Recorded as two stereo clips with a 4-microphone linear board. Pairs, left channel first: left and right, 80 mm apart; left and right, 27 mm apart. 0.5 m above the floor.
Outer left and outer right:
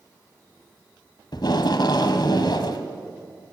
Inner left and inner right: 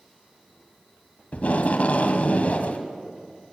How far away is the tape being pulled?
About 1.7 m.